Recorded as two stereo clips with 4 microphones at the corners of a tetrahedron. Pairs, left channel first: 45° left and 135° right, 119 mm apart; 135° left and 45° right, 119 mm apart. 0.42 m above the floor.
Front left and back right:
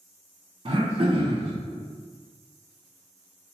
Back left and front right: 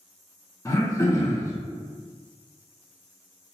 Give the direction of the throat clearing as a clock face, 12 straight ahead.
5 o'clock.